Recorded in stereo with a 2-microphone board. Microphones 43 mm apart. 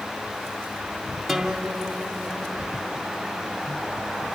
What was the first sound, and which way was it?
A guitar, centre (ahead or behind).